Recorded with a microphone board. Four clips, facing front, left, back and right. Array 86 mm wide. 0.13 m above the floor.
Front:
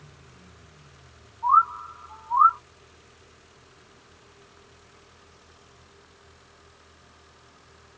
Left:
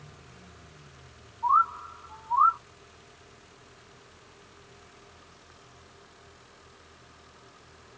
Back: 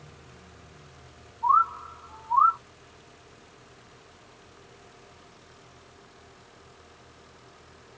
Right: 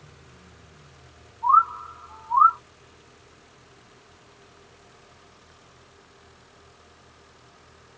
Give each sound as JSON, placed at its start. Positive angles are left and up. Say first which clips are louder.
{"t": 1.4, "sound": "a bird", "louder": "right 5 dB, front 2 dB", "azimuth_deg": -100, "distance_m": 2.0}